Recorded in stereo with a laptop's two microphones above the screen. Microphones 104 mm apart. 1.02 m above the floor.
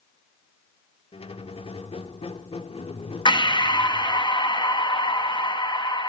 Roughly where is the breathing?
Left.